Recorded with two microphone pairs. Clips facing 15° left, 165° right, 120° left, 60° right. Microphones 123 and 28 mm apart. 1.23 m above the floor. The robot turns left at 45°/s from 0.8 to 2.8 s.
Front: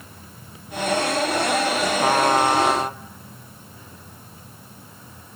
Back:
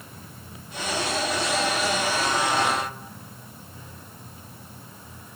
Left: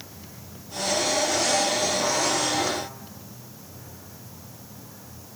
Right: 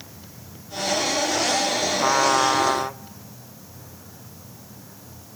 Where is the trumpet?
5° right, 0.5 m; by 3.0 s 40° right, 0.5 m.